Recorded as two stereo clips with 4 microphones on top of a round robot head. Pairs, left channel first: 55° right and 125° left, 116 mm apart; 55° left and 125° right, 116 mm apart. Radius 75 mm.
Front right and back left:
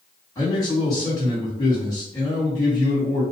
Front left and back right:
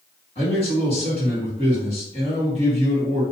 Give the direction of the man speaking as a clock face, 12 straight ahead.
12 o'clock.